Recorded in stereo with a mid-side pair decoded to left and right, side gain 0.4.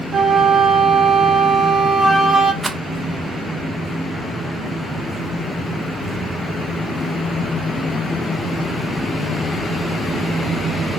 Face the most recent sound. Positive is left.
turn(degrees=-20)